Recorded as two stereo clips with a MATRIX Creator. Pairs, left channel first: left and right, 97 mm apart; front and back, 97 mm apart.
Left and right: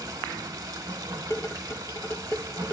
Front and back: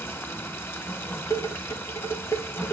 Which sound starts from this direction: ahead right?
Running water, at 0.0 s.